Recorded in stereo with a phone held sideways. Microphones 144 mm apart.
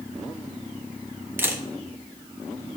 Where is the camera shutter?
15° right (ahead or behind), 1.1 m.